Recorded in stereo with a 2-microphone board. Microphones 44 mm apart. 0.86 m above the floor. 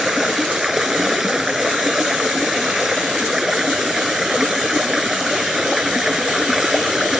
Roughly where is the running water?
Centre.